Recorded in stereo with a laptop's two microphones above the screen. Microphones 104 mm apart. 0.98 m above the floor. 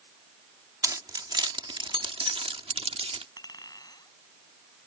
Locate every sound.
0.8 s keys jangling: 35° right (ahead or behind); by 3.3 s 75° right (ahead or behind)
3.4 s a clink: 40° left (ahead or behind)